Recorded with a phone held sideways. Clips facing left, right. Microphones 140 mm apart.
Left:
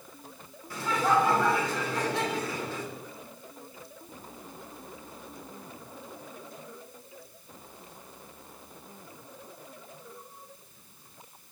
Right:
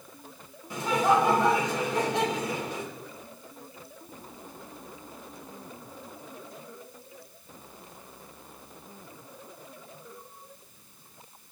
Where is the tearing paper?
I don't hear tearing paper.